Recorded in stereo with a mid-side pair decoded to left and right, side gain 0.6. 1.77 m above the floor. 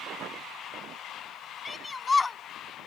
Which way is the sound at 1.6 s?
20° left.